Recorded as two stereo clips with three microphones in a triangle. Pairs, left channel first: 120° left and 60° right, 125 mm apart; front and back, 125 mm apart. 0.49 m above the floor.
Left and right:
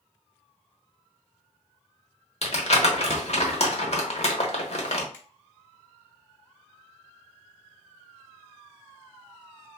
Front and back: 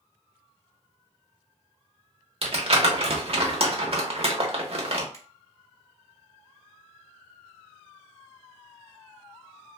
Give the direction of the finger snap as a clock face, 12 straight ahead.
10 o'clock.